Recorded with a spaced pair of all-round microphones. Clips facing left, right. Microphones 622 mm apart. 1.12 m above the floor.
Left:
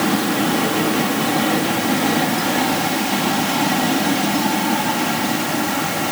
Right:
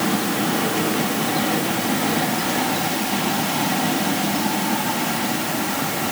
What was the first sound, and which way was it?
Only background noise.